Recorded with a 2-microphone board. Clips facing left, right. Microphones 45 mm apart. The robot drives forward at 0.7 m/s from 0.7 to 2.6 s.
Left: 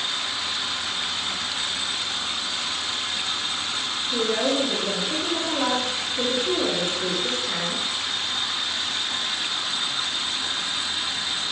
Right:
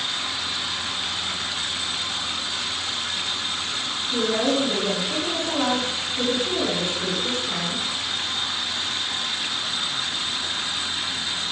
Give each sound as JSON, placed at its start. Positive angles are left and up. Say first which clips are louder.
{"t": 4.1, "sound": "a woman speaking", "louder": "right 1 dB", "side_deg": -10, "distance_m": 2.5}